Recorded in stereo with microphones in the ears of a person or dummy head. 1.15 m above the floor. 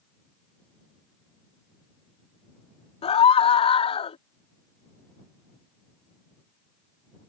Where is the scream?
25° left (ahead or behind).